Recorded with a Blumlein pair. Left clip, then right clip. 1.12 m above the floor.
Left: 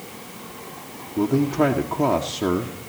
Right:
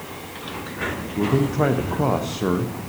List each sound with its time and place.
1.2 s a man speaking: straight ahead, 1.0 m